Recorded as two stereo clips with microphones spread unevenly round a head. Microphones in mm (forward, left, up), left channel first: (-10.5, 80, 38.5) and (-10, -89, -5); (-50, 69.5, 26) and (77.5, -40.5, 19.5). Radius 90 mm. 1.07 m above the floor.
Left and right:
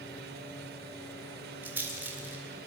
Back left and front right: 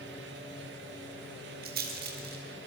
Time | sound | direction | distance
1.6 | a rattle | 10° right | 4 m